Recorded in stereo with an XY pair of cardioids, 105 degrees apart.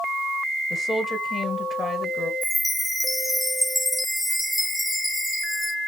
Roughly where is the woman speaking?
Ahead left.